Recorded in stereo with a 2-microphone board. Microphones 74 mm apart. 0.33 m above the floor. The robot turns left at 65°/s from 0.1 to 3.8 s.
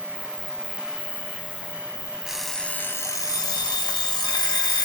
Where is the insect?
170° left, 0.8 m; by 4.9 s 70° right, 0.8 m.